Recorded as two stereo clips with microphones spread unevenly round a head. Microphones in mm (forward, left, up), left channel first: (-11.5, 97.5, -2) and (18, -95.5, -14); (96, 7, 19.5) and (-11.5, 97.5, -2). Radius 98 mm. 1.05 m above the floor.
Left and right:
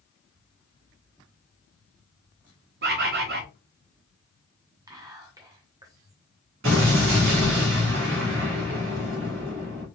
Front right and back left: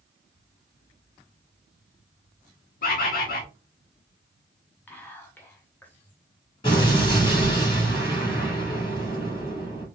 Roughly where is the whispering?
Behind right.